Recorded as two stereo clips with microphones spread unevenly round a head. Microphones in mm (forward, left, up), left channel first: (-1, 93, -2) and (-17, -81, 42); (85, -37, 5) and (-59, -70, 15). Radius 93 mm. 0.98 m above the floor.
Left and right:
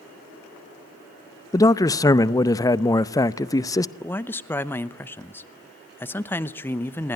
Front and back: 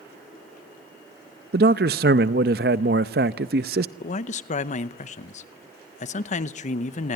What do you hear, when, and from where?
1.5 s a man speaking: 155° left, 0.6 m
4.0 s a man speaking: 20° left, 0.8 m